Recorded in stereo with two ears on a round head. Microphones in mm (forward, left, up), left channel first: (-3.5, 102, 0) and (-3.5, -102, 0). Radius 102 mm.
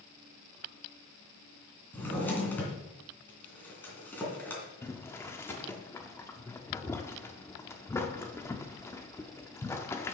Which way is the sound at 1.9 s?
10° left (ahead or behind).